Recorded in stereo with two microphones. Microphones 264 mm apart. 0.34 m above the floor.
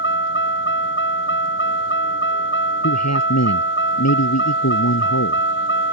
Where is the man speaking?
80° left.